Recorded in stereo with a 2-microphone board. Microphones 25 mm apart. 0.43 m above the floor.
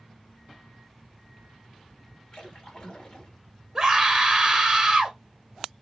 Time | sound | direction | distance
2.3 | a splash | 35° left (ahead or behind) | 1.2 m
3.8 | a scream | 5° right (ahead or behind) | 1.3 m